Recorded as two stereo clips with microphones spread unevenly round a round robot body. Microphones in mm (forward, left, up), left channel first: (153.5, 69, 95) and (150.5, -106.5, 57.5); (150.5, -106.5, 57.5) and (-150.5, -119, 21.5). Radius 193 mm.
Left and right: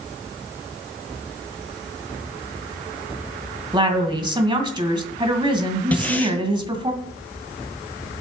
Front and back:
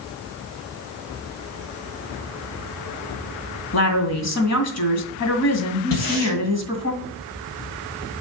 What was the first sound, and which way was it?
A woman speaking, 30° right.